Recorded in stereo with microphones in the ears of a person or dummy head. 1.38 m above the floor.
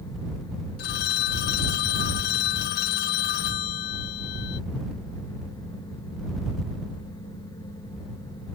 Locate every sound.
0.8 s a phone ringing: 60° left (ahead or behind)